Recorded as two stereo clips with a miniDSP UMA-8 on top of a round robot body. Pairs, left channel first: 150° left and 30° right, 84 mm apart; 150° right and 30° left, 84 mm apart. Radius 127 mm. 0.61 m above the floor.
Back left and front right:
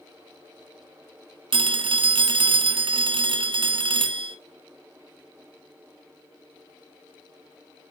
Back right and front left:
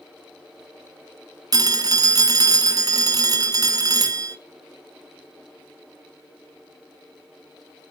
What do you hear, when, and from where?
1.5 s a phone ringing: 15° right, 0.7 m